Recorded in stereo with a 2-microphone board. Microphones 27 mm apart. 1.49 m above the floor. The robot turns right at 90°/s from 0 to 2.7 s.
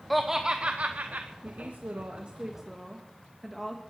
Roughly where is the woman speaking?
Behind right.